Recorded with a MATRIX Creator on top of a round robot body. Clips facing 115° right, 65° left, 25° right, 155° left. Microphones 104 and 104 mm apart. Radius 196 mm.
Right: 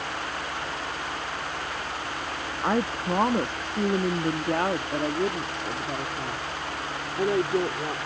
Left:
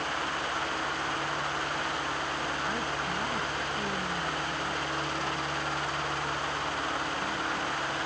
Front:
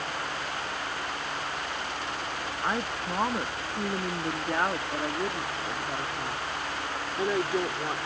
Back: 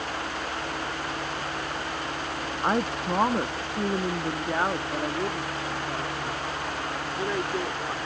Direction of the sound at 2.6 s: 140° right.